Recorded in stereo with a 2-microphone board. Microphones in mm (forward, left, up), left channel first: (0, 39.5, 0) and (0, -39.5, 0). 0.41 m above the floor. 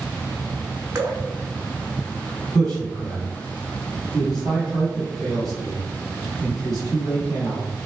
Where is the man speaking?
5° left (ahead or behind), 2 m.